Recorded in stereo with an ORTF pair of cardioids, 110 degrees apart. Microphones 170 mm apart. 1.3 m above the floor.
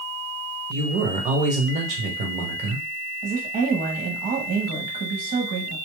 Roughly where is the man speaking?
Ahead right.